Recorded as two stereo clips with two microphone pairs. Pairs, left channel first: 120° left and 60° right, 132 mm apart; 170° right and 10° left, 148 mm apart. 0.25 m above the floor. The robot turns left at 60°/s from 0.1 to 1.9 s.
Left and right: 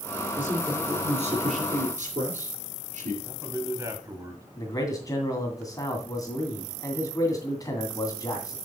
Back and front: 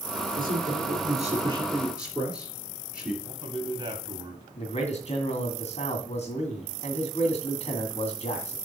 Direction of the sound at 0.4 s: 20° left.